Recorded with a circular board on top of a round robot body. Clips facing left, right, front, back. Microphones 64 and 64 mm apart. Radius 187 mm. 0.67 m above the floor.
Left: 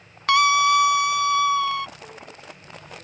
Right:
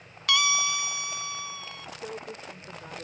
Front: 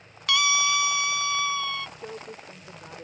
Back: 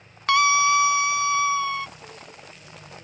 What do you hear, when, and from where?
0.3 s a scream: 135° left; by 1.9 s 110° left
2.0 s a woman speaking: 35° right